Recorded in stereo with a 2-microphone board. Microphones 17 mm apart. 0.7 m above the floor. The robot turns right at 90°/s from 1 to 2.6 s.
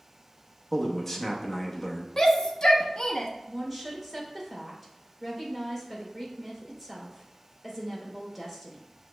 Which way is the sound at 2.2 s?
35° left (ahead or behind).